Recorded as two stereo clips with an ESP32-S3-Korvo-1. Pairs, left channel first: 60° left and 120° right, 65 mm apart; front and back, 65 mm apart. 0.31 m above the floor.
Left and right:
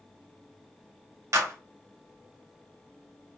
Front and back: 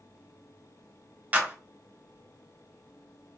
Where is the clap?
125° right, 1.0 m.